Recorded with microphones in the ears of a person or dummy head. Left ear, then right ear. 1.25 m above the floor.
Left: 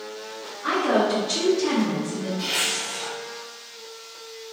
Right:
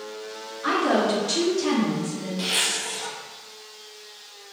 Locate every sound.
0.6 s a woman speaking: 25° right (ahead or behind), 0.8 m; by 2.3 s 20° right (ahead or behind), 1.1 m
2.4 s a zipper: 75° right (ahead or behind), 1.1 m